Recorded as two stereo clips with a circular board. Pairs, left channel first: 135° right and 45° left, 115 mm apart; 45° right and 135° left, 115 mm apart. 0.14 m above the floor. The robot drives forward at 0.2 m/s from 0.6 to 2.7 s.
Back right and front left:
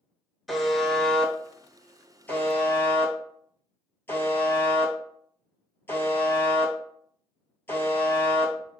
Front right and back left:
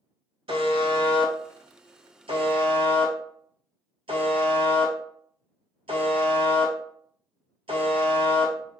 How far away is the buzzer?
About 0.6 m.